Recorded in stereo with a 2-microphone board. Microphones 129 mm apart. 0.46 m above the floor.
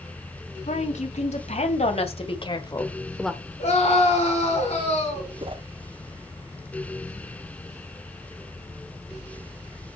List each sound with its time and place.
0.7 s a woman speaking: 70° left (ahead or behind), 4 m; by 3.4 s 10° right (ahead or behind), 1.3 m
3.6 s a scream: 50° left (ahead or behind), 6 m
5.4 s a whoosh: 45° right (ahead or behind), 0.7 m